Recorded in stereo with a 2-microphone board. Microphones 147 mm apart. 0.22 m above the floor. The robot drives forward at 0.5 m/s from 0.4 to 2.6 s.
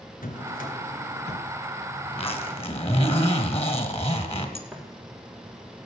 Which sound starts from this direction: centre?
Footsteps, at 4.7 s.